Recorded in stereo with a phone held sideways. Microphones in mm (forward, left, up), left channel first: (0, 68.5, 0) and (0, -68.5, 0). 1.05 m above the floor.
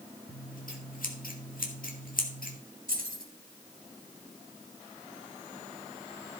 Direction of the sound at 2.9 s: 85° right.